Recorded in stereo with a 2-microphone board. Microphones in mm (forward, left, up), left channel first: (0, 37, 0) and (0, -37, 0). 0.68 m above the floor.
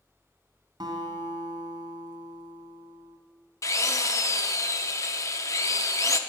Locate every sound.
0.8 s a guitar: 75° right (ahead or behind), 1.9 m
3.6 s a drill: 45° left (ahead or behind), 0.5 m